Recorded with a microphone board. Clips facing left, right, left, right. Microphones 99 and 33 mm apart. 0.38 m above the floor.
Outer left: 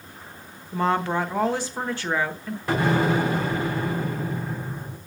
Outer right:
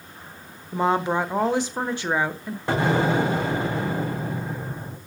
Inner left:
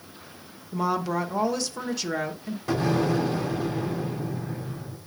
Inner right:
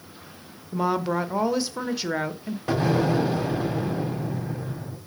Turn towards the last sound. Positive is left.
turn(degrees=-25)  # may be behind; listen again after turning